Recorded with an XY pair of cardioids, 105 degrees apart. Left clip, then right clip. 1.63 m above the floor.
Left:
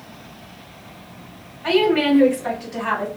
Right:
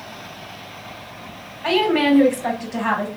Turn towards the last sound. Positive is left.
turn(degrees=-60)